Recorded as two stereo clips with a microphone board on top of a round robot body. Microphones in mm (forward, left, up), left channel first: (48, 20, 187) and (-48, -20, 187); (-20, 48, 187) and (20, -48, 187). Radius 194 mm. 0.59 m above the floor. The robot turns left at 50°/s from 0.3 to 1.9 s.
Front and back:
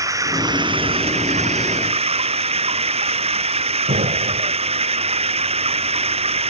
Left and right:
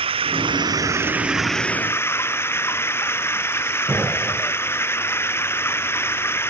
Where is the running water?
100° right; by 6.5 s straight behind.